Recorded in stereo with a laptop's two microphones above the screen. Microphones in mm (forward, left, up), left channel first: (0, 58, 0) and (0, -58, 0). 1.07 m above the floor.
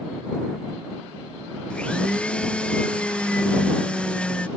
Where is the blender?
10° left (ahead or behind).